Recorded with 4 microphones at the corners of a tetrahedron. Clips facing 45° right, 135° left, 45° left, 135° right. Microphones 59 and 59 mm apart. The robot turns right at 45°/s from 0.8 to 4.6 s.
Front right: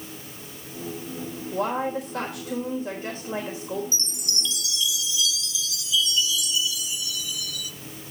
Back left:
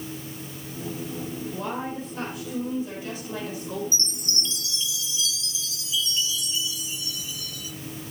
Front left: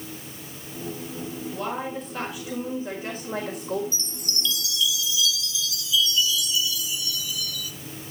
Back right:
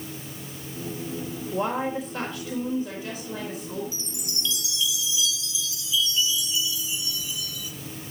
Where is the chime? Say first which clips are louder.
Back left 1 dB, front left 2 dB; 140° left, 0.9 m; by 7.7 s 170° left, 0.9 m.